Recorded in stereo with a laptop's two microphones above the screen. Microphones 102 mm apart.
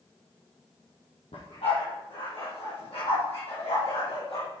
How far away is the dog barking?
About 9.5 m.